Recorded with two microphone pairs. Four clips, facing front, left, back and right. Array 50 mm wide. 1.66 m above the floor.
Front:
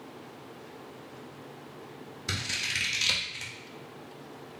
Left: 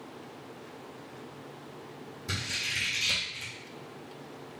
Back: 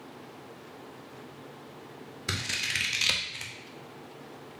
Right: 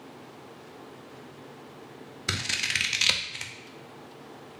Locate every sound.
2.3 s scissors: 110° right, 0.5 m